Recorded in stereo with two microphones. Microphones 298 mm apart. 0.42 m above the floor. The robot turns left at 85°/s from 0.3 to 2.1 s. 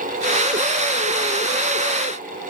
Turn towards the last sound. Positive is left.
No sound to turn to.